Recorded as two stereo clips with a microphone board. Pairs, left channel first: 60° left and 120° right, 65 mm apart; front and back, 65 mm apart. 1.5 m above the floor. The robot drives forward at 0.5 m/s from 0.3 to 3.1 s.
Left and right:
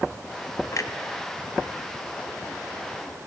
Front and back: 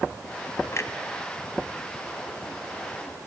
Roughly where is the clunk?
Ahead left.